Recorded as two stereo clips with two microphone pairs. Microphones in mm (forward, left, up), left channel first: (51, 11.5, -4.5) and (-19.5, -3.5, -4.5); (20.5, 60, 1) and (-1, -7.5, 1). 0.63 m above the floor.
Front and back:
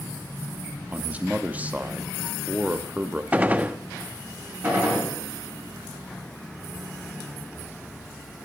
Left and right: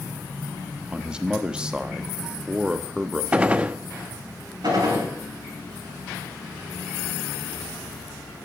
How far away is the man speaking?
About 0.7 m.